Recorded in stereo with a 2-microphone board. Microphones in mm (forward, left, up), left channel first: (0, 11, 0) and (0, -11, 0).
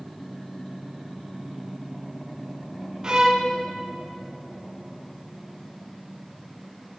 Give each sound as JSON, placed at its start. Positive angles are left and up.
{"t": 3.0, "sound": "a violin", "side_deg": -40, "distance_m": 1.0}